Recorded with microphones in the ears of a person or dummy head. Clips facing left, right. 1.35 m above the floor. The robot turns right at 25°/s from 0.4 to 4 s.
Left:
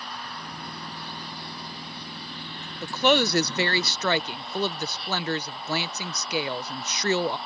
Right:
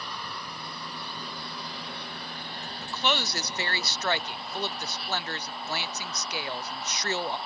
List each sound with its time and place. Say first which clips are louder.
0.0 s an engine running: left 1 dB; 90° right; by 7.5 s straight ahead
2.8 s a woman speaking: left 9 dB; 35° left (ahead or behind); by 7.4 s 60° left (ahead or behind)